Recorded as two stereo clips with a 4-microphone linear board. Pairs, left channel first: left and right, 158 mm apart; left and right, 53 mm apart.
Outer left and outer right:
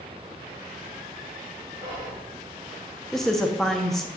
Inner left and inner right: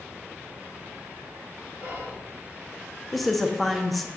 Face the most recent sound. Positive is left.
turn(degrees=0)  # may be behind; listen again after turning